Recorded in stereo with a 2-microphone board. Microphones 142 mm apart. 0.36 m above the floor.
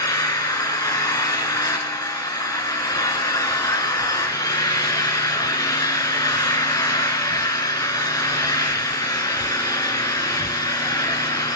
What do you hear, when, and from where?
0.0 s an engine running: 25° left (ahead or behind), 1.1 m